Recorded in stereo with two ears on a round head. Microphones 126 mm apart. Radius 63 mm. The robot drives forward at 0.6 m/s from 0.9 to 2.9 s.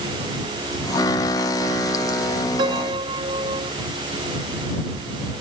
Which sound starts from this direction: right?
A piano, at 2.6 s.